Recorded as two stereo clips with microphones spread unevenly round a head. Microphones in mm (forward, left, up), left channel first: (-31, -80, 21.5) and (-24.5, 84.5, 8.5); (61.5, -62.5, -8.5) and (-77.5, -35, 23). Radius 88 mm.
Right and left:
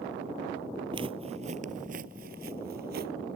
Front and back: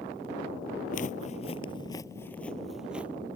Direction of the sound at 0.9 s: 25° left.